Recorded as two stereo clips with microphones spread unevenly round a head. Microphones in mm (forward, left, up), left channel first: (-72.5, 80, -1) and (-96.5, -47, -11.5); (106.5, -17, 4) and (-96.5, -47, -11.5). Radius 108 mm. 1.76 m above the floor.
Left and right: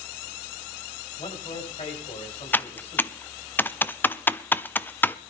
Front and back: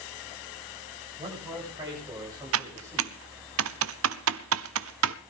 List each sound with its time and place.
1.2 s a man speaking: 120° left, 8 m; by 3.2 s 110° left, 7 m
2.5 s typing on a keyboard: 155° left, 0.7 m